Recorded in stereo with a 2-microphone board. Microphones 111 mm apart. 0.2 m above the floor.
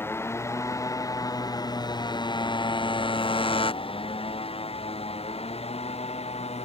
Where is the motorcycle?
20° left (ahead or behind); by 6.7 s 70° left (ahead or behind).